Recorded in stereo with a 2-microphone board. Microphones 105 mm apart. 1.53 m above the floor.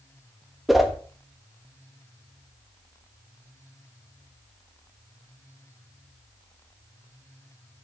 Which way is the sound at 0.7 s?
Centre (ahead or behind).